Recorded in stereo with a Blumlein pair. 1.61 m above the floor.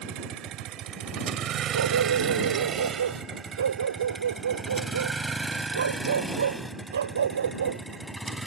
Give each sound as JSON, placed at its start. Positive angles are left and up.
{"t": 0.0, "sound": "a vehicle", "azimuth_deg": -35}
{"t": 1.7, "sound": "a dog barking", "azimuth_deg": -70}